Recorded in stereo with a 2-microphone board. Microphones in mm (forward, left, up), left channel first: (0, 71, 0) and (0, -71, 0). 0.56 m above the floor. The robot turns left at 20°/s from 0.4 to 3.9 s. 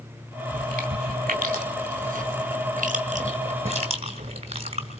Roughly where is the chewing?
Right.